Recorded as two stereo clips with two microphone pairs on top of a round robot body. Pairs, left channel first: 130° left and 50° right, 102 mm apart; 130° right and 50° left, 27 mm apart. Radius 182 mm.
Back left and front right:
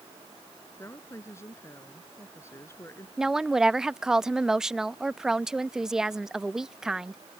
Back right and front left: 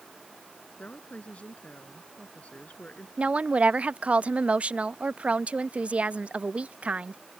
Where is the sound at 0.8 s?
165° right.